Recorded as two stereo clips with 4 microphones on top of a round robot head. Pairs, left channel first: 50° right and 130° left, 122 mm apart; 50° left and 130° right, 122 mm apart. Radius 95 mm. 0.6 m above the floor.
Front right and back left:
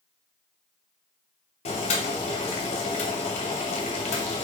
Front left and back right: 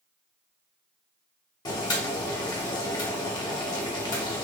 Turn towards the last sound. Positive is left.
turn(degrees=-10)